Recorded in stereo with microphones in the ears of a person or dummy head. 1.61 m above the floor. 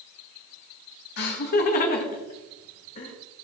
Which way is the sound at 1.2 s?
55° left (ahead or behind).